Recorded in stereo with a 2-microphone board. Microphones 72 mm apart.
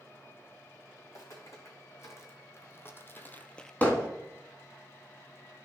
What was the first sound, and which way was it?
Footsteps, 40° left (ahead or behind).